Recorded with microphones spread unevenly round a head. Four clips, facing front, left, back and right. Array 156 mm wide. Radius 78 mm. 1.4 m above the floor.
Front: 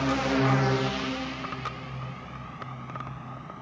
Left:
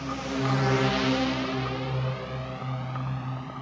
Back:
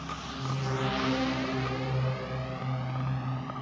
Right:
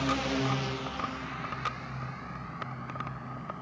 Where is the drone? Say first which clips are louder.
Even, front 13 dB; 10° right; by 3.6 s 135° left.